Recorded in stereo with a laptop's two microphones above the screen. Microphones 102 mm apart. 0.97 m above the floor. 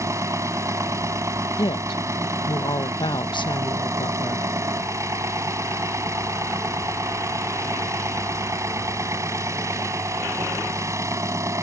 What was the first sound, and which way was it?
An engine running, 30° right (ahead or behind).